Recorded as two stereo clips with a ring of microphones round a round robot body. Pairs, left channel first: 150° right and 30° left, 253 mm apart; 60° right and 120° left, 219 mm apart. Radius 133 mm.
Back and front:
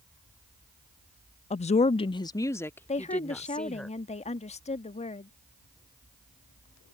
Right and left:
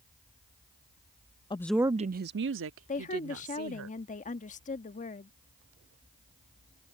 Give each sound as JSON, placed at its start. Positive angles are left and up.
{"t": 1.5, "sound": "a woman speaking", "azimuth_deg": -110}
{"t": 2.9, "sound": "a woman speaking", "azimuth_deg": -100}